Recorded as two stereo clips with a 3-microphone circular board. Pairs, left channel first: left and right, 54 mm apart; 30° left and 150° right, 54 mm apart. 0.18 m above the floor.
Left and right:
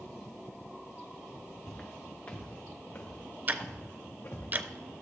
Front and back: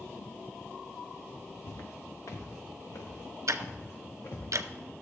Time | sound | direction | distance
1.7 | footsteps | 20° left | 1.7 m
3.5 | ticking | 140° right | 0.5 m